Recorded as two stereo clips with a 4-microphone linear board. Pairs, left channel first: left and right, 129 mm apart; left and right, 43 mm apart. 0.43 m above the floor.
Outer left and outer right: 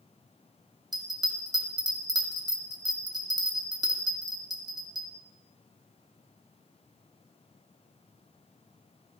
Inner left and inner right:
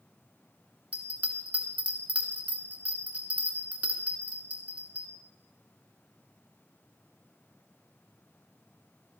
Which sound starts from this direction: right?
A bell, at 0.9 s.